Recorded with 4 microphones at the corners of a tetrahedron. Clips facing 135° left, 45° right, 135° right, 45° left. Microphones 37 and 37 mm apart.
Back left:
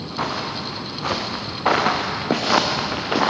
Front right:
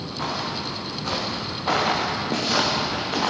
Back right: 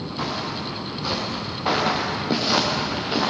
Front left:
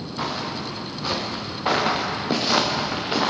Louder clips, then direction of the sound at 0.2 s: Back left 3 dB, front left 1 dB; 125° left.